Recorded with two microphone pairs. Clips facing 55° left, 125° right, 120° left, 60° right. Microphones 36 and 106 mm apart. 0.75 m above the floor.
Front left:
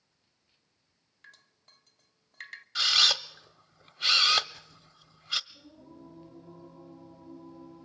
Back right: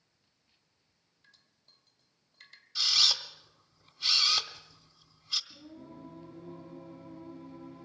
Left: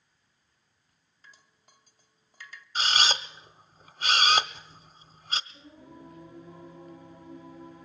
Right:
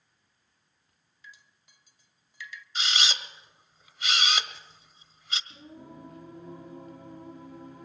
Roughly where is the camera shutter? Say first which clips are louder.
Front left 4 dB, left 4 dB; left.